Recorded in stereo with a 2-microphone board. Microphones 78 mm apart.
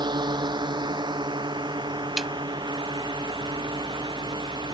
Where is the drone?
65° right (ahead or behind); by 4.7 s 70° right (ahead or behind).